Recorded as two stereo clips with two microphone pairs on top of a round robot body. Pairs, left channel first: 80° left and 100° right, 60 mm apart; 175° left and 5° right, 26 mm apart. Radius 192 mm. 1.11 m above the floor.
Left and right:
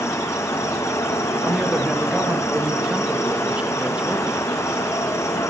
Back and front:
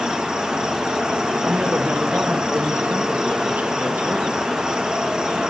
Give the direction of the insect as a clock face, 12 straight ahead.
10 o'clock.